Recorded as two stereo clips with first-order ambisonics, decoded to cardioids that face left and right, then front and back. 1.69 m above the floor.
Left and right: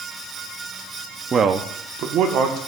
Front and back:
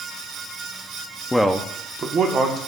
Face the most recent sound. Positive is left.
turn(degrees=-125)